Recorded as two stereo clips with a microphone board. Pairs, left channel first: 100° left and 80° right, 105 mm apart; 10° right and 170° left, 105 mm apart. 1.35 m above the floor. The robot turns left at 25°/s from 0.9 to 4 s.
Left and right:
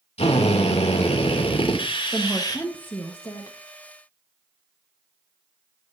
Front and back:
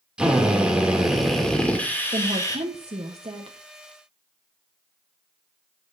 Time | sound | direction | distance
0.2 | a drill | 90° left | 2.5 m
2.1 | a woman speaking | 170° right | 1.2 m